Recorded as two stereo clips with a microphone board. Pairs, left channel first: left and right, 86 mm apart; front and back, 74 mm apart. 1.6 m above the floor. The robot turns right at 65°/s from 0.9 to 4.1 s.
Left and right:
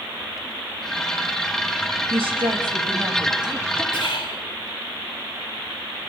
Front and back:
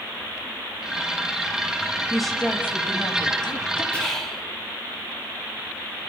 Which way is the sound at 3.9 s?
75° left.